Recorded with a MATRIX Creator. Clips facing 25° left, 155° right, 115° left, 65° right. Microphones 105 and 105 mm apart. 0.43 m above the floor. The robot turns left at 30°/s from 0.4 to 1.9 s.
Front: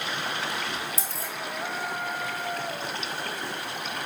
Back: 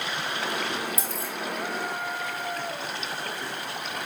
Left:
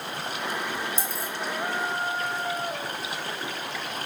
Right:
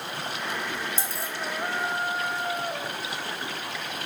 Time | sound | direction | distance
1.0 | a dropped coin | 80° left | 1.1 m